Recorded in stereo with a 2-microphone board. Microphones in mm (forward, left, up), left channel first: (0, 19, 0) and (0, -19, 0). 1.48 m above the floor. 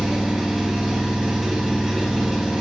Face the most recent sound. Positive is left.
turn(degrees=-15)  # may be behind; listen again after turning